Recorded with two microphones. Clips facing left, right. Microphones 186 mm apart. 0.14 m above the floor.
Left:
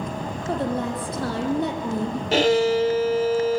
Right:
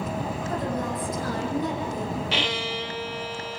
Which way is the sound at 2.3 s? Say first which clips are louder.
Left 12 dB; 45° left (ahead or behind).